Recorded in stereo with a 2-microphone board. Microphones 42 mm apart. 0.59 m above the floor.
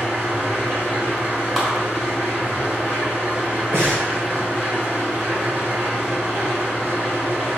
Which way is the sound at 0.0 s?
35° right (ahead or behind).